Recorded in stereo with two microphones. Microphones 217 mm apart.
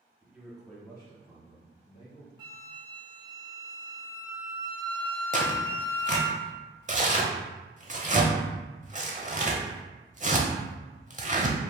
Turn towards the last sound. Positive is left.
turn(degrees=-35)  # may be behind; listen again after turning